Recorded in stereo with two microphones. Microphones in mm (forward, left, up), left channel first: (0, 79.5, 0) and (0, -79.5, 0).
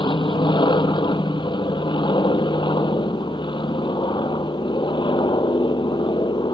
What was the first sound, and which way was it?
An aircraft, 30° left (ahead or behind).